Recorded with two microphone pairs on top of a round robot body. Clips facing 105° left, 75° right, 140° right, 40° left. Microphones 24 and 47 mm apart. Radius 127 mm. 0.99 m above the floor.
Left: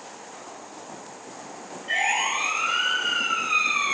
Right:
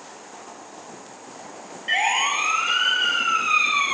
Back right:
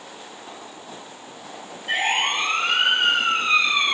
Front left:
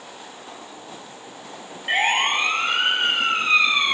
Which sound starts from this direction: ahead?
A siren, at 1.9 s.